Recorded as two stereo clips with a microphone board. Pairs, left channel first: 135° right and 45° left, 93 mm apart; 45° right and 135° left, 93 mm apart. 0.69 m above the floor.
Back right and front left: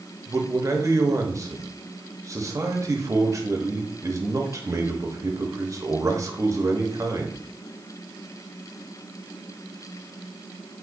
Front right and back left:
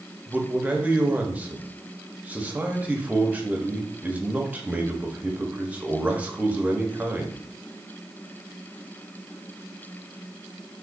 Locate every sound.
0.3 s a man speaking: 70° left, 0.8 m